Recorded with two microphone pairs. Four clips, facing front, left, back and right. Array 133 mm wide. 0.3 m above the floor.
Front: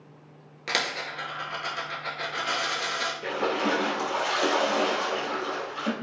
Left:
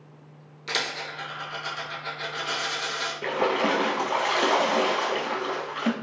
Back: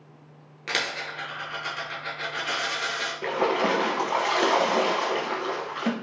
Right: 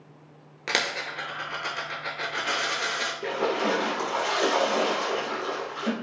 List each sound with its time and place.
0.7 s a dropped coin: 75° right, 0.9 m
3.2 s a splash: 140° left, 0.6 m